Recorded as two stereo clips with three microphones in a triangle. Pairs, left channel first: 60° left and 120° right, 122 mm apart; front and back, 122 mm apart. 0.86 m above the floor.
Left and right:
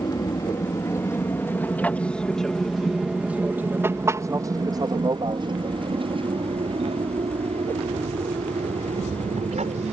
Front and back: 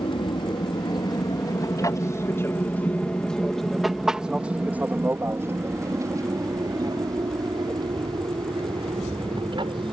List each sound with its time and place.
0.0 s an aircraft: 20° left; by 9.9 s 135° right